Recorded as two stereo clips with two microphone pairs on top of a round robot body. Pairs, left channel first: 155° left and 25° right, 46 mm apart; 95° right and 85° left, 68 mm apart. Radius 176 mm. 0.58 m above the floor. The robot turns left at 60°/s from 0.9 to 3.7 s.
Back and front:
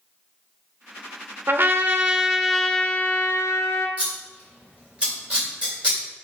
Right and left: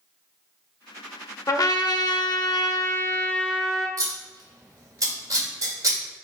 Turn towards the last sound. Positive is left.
turn(degrees=40)